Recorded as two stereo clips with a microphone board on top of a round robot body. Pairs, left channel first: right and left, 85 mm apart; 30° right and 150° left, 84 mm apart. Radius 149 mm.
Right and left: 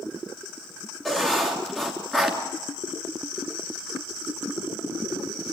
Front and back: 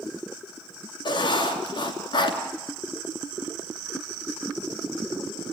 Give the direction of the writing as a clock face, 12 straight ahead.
12 o'clock.